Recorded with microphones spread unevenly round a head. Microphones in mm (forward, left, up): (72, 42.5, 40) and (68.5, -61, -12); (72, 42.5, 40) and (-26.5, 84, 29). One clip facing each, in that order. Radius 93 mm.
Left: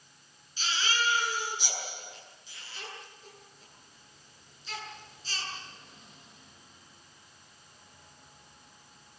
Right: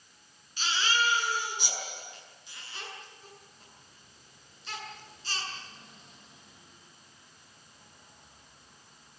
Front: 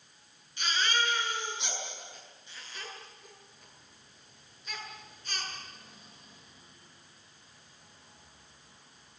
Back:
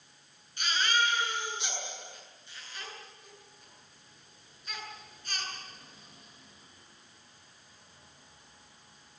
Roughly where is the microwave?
I don't hear a microwave.